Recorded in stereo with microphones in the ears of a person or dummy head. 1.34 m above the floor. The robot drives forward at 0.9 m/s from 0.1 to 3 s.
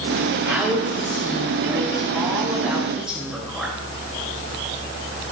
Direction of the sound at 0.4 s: 10° right (ahead or behind).